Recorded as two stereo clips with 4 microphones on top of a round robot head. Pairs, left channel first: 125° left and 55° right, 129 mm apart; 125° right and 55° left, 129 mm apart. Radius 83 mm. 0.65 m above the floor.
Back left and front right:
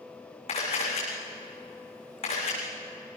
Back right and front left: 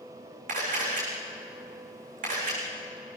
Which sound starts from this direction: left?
A camera shutter, at 0.5 s.